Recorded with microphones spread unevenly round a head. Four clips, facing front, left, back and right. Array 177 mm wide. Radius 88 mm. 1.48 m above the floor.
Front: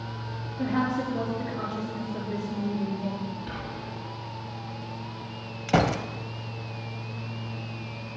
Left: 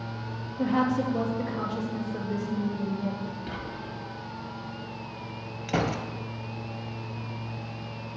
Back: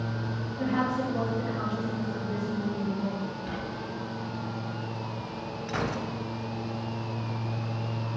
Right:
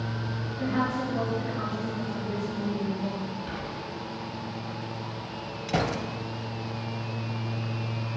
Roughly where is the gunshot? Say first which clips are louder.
Even, front 8 dB; ahead.